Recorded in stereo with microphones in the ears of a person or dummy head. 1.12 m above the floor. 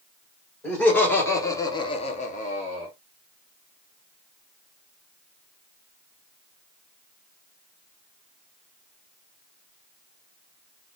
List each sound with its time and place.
0.6 s laughter: 5° left (ahead or behind), 1.9 m; by 2.9 s 25° left (ahead or behind), 1.0 m